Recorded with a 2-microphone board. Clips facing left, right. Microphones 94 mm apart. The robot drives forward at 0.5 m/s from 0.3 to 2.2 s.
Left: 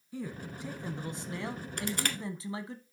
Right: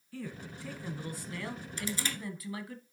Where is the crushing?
60° left (ahead or behind), 1.3 m; by 2.2 s 65° left (ahead or behind), 1.2 m.